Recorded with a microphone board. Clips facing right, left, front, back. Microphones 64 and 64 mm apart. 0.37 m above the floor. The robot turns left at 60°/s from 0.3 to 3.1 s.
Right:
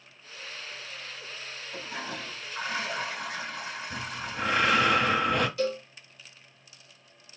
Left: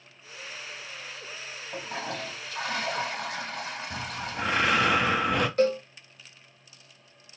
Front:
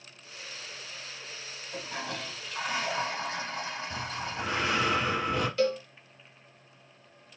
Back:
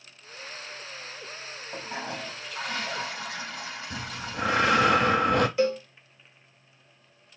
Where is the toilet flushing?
135° left, 3.5 m; by 4.9 s 55° left, 3.5 m.